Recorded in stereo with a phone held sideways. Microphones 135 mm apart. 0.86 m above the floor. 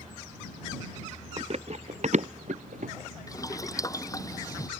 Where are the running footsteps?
45° right (ahead or behind); by 2.9 s 70° right (ahead or behind).